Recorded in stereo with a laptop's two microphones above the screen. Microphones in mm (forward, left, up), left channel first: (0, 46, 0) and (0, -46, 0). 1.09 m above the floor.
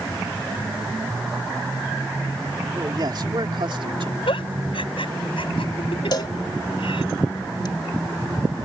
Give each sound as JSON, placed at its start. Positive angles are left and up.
{"t": 2.7, "sound": "a man speaking", "side_deg": -45}
{"t": 4.3, "sound": "a giggle", "side_deg": 80}
{"t": 6.1, "sound": "a cowbell", "side_deg": 50}